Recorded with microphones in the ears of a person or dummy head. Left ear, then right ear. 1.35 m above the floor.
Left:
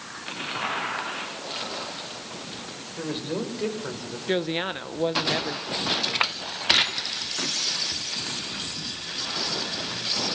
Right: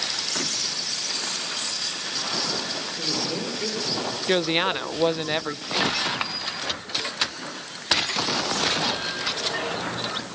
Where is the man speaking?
55° left (ahead or behind), 7 m; by 4.2 s 65° left (ahead or behind), 5.5 m.